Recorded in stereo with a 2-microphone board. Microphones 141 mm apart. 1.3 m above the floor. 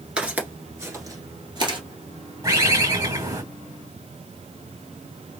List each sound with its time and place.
0.2 s footsteps: 10° right (ahead or behind), 1.3 m; by 1.8 s 35° right (ahead or behind), 1.5 m
2.4 s a bird: 25° right (ahead or behind), 2 m